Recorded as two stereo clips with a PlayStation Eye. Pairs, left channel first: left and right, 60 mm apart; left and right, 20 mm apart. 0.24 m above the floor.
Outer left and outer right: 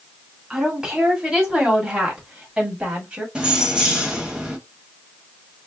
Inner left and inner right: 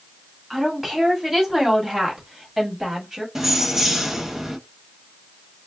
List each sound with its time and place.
0.5 s a woman speaking: 15° right (ahead or behind), 1.8 m; by 3.2 s 25° right (ahead or behind), 1.6 m
3.4 s keys jangling: 15° right (ahead or behind), 0.9 m